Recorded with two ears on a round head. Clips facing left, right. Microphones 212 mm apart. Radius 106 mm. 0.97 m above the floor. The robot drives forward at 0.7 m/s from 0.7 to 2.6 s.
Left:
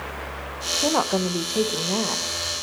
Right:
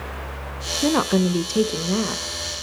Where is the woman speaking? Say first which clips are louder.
Right 4 dB; 25° right (ahead or behind), 0.6 m; by 2.3 s 15° right (ahead or behind), 1.0 m.